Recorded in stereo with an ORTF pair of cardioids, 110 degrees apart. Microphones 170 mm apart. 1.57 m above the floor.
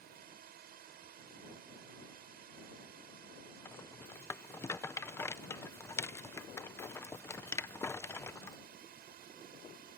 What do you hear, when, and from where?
0.0 s a drone: 65° right
3.6 s a rattle: 15° left